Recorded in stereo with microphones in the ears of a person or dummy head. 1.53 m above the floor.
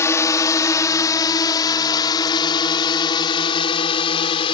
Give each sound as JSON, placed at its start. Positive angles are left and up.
{"t": 0.0, "sound": "a drone", "side_deg": 20}